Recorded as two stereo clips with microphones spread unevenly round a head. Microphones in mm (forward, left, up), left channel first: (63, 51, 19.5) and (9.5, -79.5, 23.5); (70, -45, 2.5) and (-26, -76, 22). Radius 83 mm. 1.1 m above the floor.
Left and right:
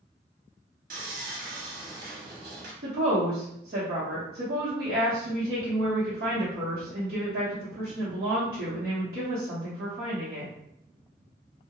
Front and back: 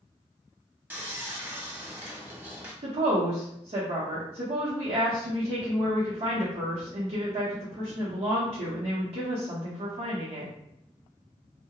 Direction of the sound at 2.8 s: 145° right.